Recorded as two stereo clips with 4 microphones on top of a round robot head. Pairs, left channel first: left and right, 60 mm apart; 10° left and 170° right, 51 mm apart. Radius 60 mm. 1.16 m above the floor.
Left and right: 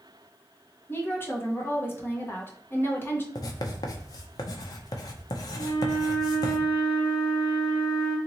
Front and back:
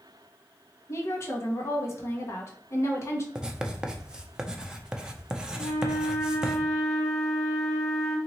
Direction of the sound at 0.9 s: 40° left.